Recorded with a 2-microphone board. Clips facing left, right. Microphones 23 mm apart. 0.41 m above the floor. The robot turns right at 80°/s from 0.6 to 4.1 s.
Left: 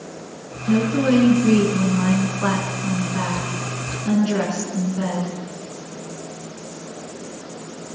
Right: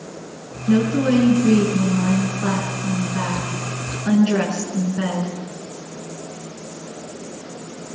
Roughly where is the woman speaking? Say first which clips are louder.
Right 1 dB; ahead right.